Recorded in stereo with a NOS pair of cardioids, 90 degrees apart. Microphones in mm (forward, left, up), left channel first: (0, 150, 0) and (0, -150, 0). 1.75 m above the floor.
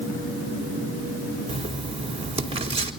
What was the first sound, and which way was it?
Writing, 20° right.